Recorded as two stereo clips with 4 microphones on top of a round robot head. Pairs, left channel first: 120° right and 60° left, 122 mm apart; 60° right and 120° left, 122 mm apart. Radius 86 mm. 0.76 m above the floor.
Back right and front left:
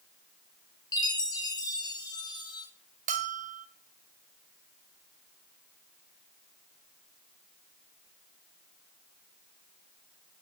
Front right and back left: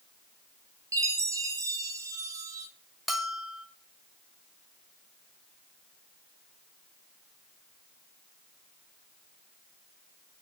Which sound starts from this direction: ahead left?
A bell, at 3.1 s.